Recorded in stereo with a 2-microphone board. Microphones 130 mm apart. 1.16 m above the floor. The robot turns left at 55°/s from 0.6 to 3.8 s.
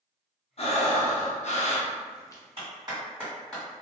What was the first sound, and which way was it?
Breathing, 120° left.